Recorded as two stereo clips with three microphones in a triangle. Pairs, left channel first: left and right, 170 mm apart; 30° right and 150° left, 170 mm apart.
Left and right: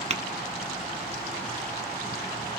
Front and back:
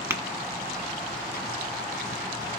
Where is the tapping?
135° right, 1.1 m.